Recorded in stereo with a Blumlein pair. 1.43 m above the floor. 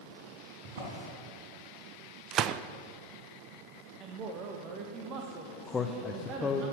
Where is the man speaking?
20° left, 0.9 m.